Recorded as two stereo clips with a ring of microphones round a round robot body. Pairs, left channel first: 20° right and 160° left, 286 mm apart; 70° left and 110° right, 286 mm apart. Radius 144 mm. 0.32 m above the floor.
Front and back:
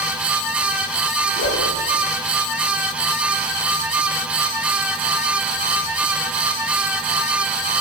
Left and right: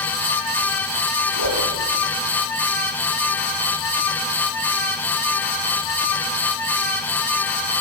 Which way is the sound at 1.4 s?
75° right.